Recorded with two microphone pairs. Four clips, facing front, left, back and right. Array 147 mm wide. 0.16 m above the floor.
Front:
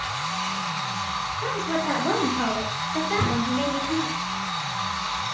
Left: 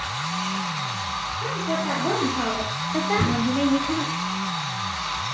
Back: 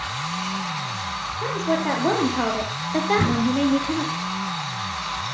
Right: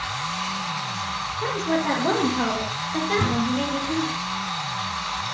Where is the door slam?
165° left, 1.6 m.